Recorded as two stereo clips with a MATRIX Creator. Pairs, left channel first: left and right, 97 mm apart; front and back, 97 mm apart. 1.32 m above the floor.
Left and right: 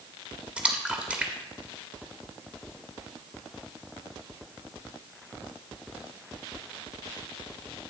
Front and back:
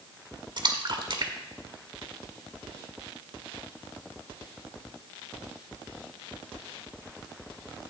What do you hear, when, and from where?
0.6 s a splash: 170° right, 1.4 m